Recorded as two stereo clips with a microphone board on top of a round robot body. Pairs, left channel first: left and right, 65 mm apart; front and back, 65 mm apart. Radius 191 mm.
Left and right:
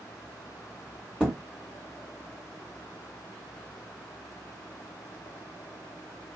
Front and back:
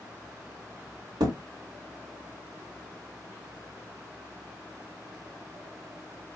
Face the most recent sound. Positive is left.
turn(degrees=-170)